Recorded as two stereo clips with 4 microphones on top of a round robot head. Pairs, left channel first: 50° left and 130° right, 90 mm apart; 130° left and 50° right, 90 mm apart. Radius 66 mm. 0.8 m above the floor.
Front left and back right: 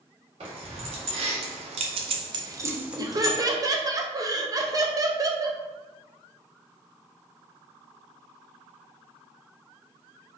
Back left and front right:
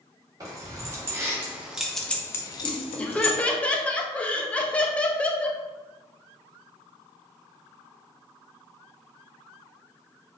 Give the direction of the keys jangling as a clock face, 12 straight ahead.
4 o'clock.